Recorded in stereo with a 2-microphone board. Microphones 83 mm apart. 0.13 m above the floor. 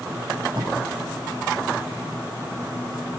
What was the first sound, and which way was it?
Tape being pulled, 75° right (ahead or behind).